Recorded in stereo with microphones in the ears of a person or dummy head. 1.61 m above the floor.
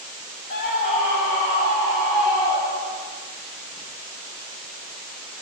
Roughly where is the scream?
Left.